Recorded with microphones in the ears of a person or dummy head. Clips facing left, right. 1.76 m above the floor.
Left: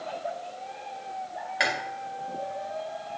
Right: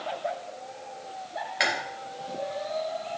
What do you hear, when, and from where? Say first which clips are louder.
1.6 s chewing: even; centre (ahead or behind), 1.9 m